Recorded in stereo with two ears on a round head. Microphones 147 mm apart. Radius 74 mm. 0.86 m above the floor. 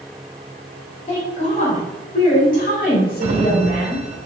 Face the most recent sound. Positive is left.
turn(degrees=-40)  # may be behind; listen again after turning